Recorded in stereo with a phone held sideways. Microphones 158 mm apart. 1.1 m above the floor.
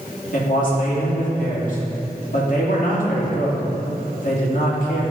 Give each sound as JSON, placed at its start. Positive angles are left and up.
{"t": 0.3, "sound": "a man speaking", "side_deg": 55, "distance_m": 2.0}